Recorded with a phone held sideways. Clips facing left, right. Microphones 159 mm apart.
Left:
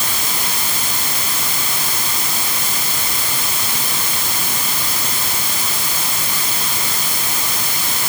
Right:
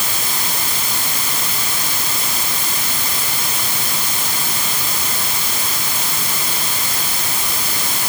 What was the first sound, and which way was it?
Only background noise.